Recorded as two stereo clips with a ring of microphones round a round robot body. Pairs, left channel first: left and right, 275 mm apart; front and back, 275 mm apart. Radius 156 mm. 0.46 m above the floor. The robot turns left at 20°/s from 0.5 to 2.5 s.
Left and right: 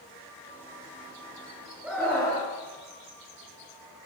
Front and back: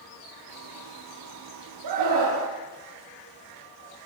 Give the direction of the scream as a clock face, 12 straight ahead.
6 o'clock.